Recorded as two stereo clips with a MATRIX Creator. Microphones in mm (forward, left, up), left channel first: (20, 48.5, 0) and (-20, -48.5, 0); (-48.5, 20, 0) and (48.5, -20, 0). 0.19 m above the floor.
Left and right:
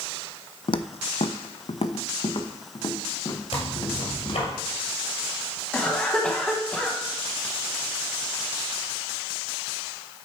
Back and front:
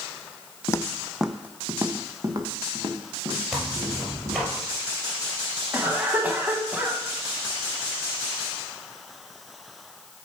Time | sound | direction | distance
0.7 | footsteps | 100° left | 0.5 m
3.5 | tearing paper | 60° left | 3 m
5.7 | a cough | 10° left | 1.0 m